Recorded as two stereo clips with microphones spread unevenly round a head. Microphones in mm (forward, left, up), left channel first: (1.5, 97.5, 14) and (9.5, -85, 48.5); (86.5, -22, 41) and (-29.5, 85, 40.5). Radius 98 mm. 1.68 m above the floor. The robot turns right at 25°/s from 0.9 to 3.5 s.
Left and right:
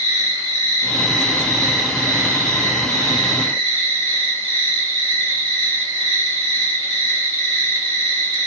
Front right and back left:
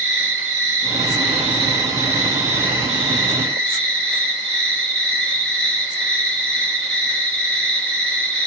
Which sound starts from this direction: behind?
An insect, at 0.0 s.